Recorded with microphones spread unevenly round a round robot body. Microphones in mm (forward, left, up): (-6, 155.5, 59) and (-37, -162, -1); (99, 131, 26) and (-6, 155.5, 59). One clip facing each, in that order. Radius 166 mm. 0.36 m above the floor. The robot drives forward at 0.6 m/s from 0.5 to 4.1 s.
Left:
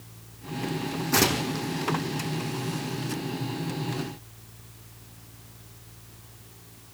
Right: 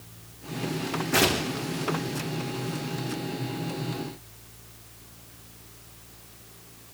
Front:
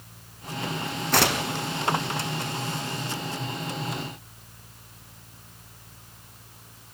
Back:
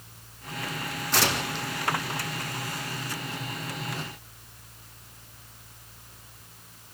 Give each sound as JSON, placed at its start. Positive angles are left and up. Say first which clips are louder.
{"t": 1.1, "sound": "tearing paper", "louder": "even, front 4 dB", "azimuth_deg": 10, "distance_m": 3.5}